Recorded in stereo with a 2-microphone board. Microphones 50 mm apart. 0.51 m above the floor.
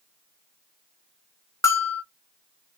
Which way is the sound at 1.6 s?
75° left (ahead or behind).